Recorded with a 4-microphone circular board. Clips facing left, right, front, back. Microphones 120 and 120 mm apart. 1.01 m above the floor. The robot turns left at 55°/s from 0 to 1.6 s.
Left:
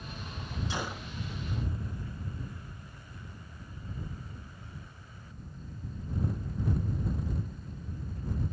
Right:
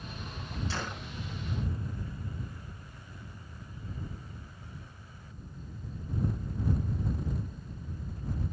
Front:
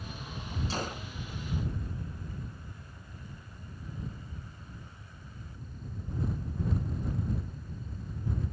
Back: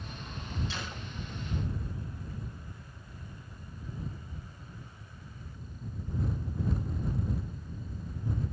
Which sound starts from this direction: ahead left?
A gunshot, at 0.7 s.